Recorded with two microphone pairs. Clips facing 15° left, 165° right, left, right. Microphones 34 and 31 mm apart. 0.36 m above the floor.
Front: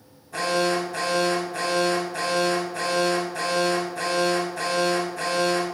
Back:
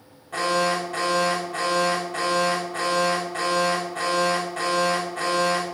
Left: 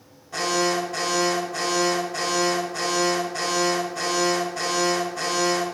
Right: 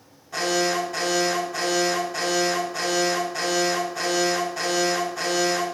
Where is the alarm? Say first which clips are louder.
Back 1 dB, even; straight behind, 6.5 m.